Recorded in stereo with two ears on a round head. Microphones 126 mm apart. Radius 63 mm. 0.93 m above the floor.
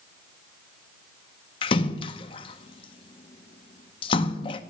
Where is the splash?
35° left (ahead or behind), 0.5 m.